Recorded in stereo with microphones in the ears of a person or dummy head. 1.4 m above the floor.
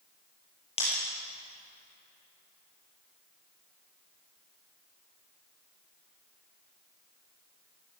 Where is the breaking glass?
30° left (ahead or behind), 9.5 m.